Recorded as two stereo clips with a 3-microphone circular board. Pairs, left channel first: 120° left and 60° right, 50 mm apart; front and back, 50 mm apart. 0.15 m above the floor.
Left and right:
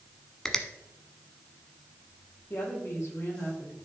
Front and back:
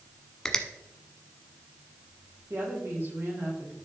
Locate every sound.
0.5 s a finger snap: 60° left, 1.0 m
2.5 s a woman speaking: 155° left, 5 m